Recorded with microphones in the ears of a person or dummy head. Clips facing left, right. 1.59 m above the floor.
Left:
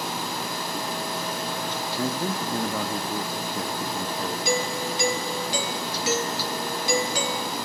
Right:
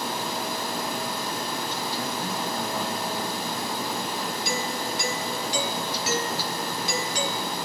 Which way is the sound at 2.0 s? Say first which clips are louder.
Left 3 dB; 60° left (ahead or behind).